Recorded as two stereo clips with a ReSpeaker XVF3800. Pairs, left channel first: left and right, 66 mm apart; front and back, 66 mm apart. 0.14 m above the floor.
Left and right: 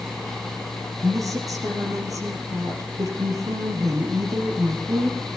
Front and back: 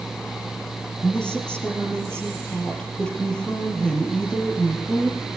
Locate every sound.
1.0 s a woman speaking: 75° right, 4 m